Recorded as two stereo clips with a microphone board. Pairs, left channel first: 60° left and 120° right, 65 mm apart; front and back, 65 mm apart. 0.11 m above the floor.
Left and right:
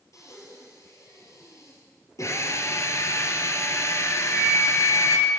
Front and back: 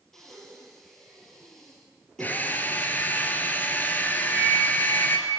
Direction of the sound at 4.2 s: 40° left.